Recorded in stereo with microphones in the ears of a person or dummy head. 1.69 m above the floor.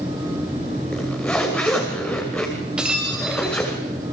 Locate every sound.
0.9 s a zipper: 5° left (ahead or behind), 2 m
2.8 s breaking glass: 10° right (ahead or behind), 3.5 m